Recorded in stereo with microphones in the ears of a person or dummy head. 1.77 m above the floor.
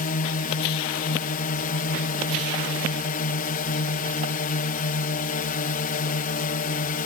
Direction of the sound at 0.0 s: 45° left (ahead or behind).